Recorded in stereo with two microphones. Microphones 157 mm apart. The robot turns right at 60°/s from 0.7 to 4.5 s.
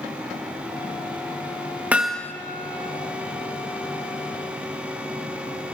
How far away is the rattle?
No rattle in this recording.